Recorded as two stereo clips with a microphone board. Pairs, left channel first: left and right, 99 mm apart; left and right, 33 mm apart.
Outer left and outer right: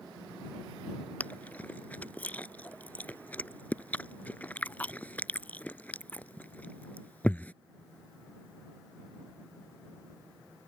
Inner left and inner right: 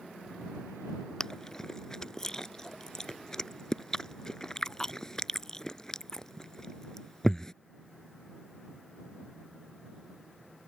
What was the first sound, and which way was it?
Chewing, 15° left (ahead or behind).